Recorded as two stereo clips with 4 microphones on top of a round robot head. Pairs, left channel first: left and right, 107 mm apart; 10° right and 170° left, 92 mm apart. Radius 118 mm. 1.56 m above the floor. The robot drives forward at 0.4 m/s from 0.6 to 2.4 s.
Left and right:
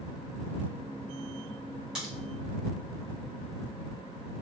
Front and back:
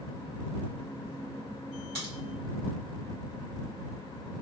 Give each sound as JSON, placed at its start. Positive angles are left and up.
{"t": 1.9, "sound": "a crack", "azimuth_deg": -175, "distance_m": 2.5}